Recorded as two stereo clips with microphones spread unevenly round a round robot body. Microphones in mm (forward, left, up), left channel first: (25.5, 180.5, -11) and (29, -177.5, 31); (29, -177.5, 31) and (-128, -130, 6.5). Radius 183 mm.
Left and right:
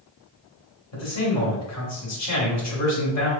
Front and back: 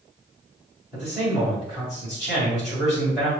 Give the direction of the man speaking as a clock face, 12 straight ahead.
9 o'clock.